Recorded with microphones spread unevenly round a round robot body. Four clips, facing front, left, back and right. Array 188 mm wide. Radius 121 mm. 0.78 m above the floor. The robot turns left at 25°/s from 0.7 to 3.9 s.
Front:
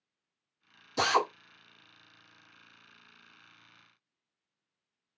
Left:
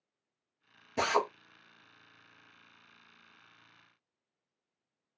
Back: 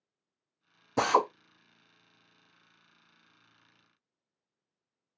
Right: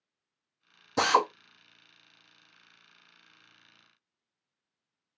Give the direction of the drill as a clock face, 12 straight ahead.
4 o'clock.